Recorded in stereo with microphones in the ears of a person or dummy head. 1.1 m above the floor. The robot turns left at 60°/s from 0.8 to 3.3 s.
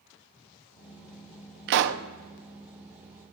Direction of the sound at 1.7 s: 55° right (ahead or behind).